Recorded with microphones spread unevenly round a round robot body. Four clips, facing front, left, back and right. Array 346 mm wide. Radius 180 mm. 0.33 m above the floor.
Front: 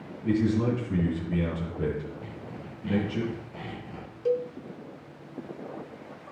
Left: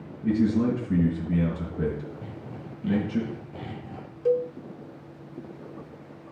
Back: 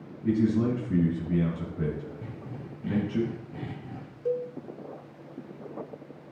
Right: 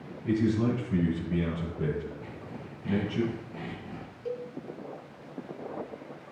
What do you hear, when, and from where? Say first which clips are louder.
0.2 s a man speaking: left 3 dB, even; 110° left, 3.5 m
2.2 s sawing: left 2 dB, even; 145° left, 4 m
4.2 s a cowbell: left 12 dB, front 3 dB; 70° left, 0.7 m